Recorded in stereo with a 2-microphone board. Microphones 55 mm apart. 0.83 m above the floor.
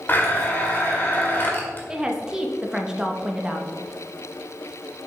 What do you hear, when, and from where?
0.1 s a blender: 40° left (ahead or behind), 1.4 m
1.9 s a woman speaking: 15° right (ahead or behind), 1.0 m